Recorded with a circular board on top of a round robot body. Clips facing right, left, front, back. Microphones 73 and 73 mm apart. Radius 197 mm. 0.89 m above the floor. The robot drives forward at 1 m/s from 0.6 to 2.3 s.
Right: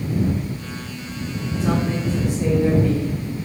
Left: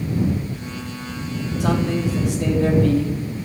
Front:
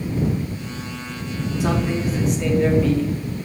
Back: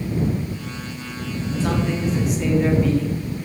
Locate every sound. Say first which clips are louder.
1.6 s a man speaking: left 1 dB, front 1 dB; 75° left, 2.5 m; by 3.2 s 95° left, 2.5 m